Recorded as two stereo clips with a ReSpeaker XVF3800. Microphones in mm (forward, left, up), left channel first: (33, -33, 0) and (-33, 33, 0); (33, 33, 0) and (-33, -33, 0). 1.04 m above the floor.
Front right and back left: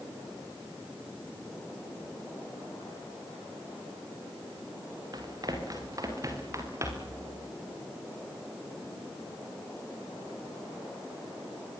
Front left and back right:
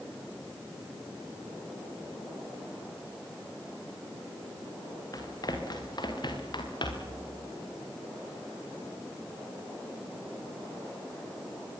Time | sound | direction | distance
5.1 | running footsteps | 90° left | 6.5 m